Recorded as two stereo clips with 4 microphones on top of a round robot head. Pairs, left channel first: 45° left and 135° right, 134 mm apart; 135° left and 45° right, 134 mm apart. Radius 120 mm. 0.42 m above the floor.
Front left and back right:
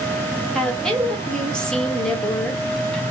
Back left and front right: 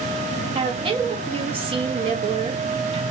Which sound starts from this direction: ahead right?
A woman speaking, at 0.6 s.